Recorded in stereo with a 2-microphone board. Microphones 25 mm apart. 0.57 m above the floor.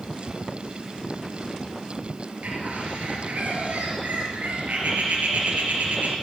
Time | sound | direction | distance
2.4 | a bird | 85° right | 3 m